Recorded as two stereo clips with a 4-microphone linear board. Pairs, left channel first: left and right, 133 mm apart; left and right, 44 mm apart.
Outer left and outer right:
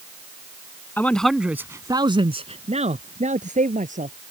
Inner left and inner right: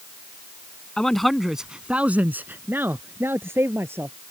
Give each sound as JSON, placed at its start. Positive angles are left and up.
{"t": 1.0, "sound": "a man speaking", "side_deg": 15}